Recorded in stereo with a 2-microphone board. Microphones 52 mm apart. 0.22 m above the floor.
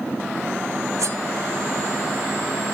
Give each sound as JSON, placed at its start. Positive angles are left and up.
{"t": 1.0, "sound": "cutlery clinking", "side_deg": -85, "distance_m": 10.0}